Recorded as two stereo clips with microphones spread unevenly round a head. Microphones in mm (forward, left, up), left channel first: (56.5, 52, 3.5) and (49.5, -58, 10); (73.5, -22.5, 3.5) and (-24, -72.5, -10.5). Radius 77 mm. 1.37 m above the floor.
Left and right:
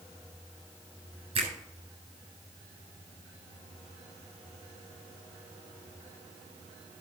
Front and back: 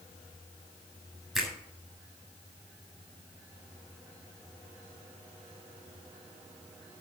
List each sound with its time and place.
1.4 s a finger snap: 60° right, 8 m